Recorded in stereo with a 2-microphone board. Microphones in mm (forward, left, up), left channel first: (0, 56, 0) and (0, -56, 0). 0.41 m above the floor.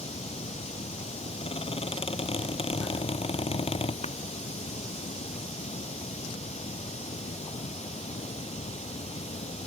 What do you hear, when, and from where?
0.0 s running water: 75° left (ahead or behind)
1.4 s a squeak: 60° left (ahead or behind)
4.0 s a clap: 75° left (ahead or behind)